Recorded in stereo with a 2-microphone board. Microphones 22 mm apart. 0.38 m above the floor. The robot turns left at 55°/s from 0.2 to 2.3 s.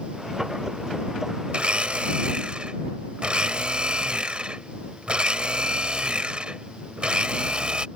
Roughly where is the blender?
Right.